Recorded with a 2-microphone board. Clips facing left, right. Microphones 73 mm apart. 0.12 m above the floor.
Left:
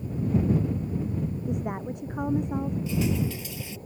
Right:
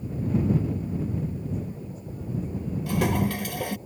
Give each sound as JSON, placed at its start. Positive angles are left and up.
{"t": 1.5, "sound": "a woman speaking", "side_deg": 70}
{"t": 2.9, "sound": "a toilet flushing", "side_deg": -60}